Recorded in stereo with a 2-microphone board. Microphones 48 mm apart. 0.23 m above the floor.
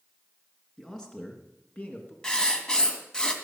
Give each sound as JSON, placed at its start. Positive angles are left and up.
{"t": 0.8, "sound": "a man speaking", "side_deg": 10, "distance_m": 3.5}
{"t": 2.2, "sound": "writing", "side_deg": 20, "distance_m": 2.0}